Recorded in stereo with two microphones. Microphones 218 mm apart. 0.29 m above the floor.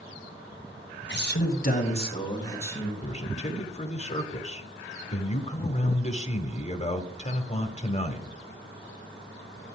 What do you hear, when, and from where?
1.1 s a man speaking: 55° left (ahead or behind), 1.6 m; by 2.9 s 10° left (ahead or behind), 3 m
3.0 s a man speaking: 30° left (ahead or behind), 1.0 m